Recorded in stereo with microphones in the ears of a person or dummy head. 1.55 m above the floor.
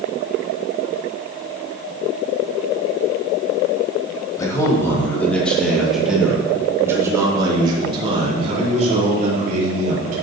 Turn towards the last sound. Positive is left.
turn(degrees=-50)  # may be behind; listen again after turning